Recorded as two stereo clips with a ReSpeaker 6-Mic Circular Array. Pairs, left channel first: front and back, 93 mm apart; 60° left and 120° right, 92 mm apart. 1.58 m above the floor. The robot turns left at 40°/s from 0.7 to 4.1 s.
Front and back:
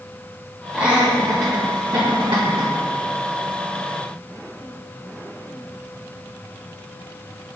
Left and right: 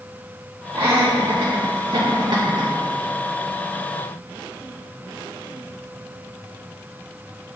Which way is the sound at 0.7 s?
100° right.